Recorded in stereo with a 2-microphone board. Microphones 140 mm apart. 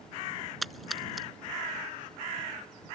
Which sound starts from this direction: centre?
A splash, at 0.6 s.